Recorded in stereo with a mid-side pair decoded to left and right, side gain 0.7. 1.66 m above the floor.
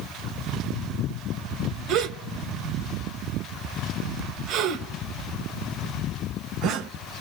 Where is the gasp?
45° right, 1.7 m.